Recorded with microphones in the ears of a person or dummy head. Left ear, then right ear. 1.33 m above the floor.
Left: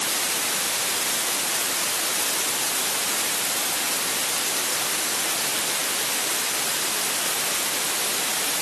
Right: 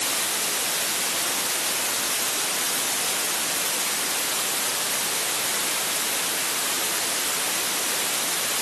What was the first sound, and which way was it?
Only background noise.